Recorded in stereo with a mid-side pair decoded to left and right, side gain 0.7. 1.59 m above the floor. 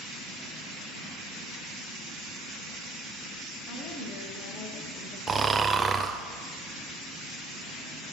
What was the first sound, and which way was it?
A woman speaking, 60° left.